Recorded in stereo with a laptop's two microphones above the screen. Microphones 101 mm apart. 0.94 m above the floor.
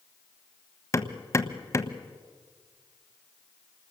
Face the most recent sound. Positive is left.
turn(degrees=30)  # may be behind; listen again after turning